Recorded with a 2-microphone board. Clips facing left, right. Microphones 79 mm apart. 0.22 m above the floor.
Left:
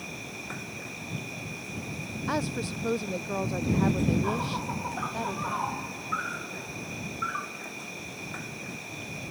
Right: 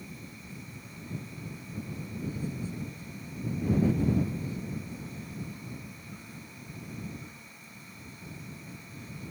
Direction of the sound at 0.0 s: 80° left.